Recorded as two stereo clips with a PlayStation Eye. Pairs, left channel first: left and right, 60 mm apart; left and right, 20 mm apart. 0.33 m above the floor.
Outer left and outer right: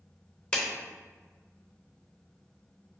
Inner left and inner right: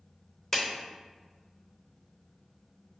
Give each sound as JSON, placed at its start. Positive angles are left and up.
{"t": 0.5, "sound": "a clap", "side_deg": 15, "distance_m": 0.7}